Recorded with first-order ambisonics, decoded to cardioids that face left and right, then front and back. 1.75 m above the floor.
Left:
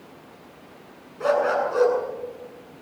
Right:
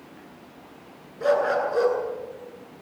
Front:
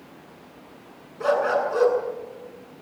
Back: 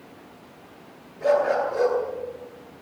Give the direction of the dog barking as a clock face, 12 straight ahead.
11 o'clock.